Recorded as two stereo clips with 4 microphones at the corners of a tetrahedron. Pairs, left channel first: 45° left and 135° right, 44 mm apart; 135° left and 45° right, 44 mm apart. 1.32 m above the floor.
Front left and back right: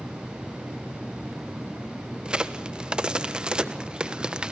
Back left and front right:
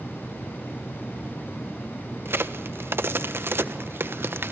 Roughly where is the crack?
Ahead right.